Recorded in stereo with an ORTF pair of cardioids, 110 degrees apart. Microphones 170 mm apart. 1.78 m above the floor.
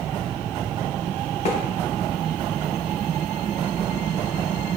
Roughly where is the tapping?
Ahead left.